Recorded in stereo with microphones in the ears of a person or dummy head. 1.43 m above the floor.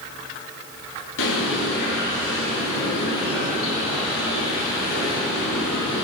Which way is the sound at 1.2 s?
75° left (ahead or behind).